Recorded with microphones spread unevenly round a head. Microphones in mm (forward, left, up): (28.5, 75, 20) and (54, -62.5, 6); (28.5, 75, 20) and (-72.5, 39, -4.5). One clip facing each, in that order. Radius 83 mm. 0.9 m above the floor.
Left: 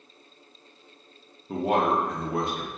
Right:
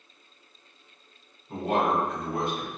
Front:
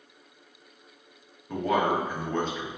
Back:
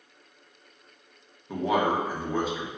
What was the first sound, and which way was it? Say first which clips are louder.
A man speaking: left 2 dB, even; 125° left.